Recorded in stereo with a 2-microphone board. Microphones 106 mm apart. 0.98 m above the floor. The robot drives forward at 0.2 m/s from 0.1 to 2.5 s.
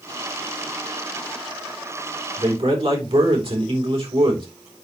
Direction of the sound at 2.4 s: 60° right (ahead or behind).